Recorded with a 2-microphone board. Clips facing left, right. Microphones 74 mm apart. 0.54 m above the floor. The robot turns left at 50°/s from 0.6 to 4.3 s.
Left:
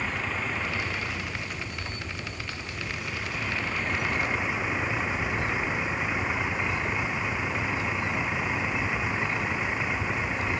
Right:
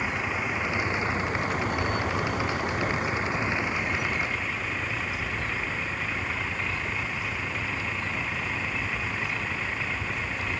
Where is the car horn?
I don't hear a car horn.